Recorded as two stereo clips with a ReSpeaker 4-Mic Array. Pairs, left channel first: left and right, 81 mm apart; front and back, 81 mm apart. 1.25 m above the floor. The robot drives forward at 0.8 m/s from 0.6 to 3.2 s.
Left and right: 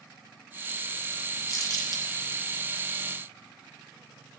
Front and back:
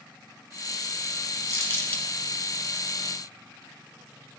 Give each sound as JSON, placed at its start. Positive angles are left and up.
{"t": 1.5, "sound": "crumpling", "azimuth_deg": 45, "distance_m": 1.2}